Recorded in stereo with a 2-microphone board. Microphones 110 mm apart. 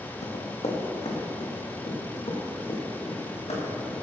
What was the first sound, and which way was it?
Running footsteps, 90° left.